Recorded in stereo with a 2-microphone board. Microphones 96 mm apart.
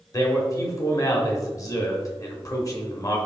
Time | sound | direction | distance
0.1 | a man speaking | 35° left (ahead or behind) | 0.9 m